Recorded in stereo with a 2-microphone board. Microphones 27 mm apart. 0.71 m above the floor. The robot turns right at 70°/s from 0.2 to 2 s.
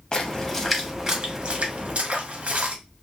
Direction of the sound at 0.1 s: 25° left (ahead or behind).